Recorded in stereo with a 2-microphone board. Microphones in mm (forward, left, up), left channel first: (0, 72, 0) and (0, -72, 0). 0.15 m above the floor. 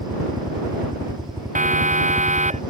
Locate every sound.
0.0 s a helicopter: 20° right (ahead or behind)
1.6 s a siren: 60° right (ahead or behind); by 2.6 s 55° right (ahead or behind)